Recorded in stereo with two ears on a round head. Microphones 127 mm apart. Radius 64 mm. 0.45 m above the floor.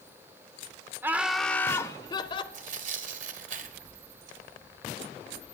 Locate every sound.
1.0 s laughter: 15° right (ahead or behind), 0.9 m; by 2.4 s 35° left (ahead or behind), 1.4 m
2.5 s tearing paper: 60° right (ahead or behind), 1.6 m